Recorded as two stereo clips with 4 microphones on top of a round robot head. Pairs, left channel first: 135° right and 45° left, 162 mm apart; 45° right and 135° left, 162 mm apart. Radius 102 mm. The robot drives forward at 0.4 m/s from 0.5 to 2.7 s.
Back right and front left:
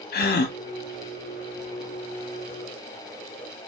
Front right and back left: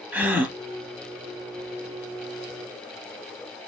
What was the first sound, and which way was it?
A gasp, 145° right.